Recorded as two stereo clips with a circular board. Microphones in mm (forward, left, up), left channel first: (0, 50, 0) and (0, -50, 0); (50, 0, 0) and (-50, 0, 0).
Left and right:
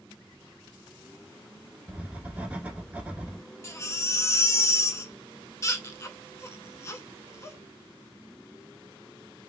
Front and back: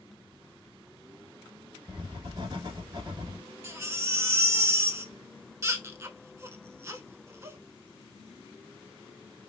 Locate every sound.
1.9 s writing: 160° right, 0.8 m
3.6 s a baby crying: 130° left, 0.5 m